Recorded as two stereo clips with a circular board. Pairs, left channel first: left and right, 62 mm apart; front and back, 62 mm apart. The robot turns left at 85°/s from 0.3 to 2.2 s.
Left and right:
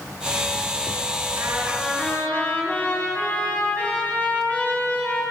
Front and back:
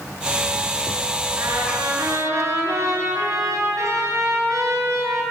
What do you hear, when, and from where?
1.4 s a trumpet: 135° right, 9 m; by 5.2 s 155° left, 9 m